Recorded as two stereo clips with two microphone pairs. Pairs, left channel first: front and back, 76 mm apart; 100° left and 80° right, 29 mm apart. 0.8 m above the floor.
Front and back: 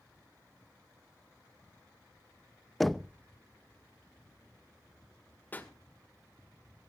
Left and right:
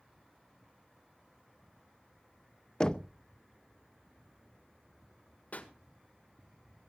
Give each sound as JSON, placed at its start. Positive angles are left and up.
{"t": 2.8, "sound": "knocking", "azimuth_deg": 90, "distance_m": 0.5}
{"t": 5.5, "sound": "a pop", "azimuth_deg": 70, "distance_m": 2.0}